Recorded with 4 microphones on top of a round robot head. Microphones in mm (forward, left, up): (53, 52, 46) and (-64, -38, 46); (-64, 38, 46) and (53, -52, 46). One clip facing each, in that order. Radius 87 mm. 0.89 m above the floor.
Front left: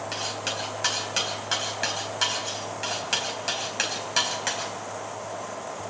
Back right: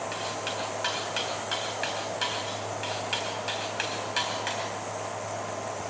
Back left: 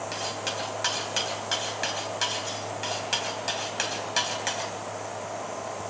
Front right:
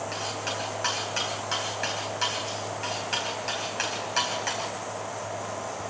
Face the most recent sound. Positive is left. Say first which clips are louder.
# even, even
turn(degrees=80)